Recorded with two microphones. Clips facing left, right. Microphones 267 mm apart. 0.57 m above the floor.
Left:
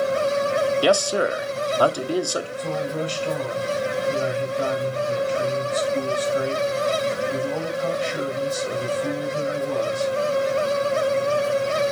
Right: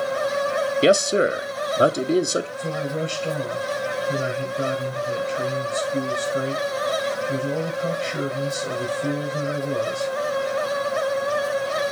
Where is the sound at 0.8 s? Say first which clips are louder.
Right 7 dB; 25° right (ahead or behind), 0.7 m.